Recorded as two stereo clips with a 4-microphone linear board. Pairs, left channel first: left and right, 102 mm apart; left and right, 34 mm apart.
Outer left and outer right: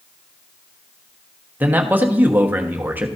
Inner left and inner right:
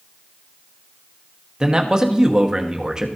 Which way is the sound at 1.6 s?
20° right (ahead or behind).